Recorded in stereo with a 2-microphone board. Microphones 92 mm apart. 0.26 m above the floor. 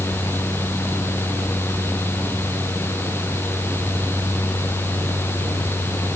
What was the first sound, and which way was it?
Only background noise.